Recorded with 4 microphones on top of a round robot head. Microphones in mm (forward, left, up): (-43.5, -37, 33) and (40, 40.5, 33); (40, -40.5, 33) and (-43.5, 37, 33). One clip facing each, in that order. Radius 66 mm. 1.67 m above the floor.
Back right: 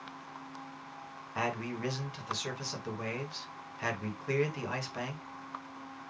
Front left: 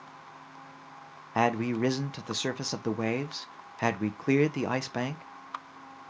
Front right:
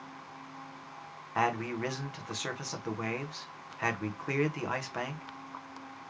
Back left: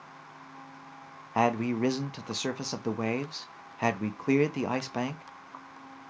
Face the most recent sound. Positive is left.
turn(degrees=75)